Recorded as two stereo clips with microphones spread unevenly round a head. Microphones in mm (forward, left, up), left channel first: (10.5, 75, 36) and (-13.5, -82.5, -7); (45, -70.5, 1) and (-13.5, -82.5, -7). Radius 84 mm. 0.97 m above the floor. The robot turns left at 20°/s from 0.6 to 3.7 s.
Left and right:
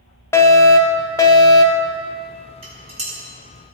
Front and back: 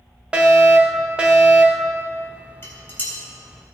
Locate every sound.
0.3 s a fire alarm: 170° left, 1.1 m; by 1.9 s 145° left, 1.1 m
2.6 s dishes clattering: 40° right, 4 m; by 3.1 s 50° right, 4 m